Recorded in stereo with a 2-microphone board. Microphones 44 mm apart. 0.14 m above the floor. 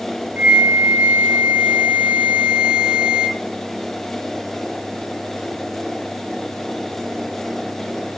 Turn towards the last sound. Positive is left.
turn(degrees=-35)  # may be behind; listen again after turning